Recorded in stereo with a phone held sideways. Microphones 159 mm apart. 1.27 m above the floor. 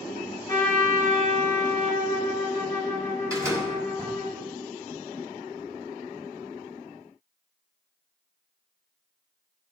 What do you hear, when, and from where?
0.5 s a trumpet: 55° right (ahead or behind), 6 m
3.3 s a door slam: 20° right (ahead or behind), 3 m